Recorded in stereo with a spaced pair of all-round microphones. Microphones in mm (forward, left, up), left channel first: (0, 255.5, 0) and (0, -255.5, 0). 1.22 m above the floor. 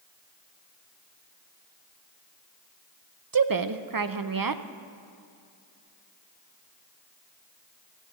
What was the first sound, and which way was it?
A woman speaking, 45° right (ahead or behind).